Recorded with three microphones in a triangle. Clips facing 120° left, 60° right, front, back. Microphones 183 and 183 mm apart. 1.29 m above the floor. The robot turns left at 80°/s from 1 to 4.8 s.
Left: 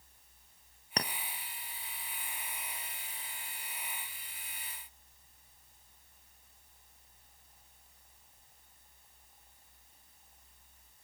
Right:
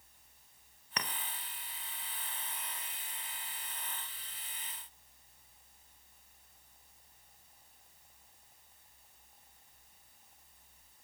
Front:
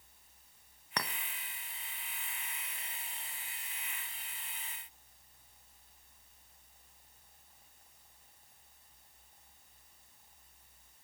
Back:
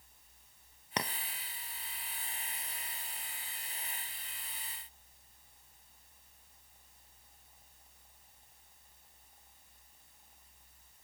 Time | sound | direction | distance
1.0 | a clink | 125° left | 0.5 m